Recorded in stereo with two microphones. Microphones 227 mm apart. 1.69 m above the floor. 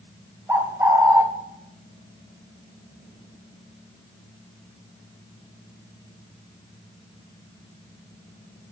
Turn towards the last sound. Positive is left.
turn(degrees=-10)  # may be behind; listen again after turning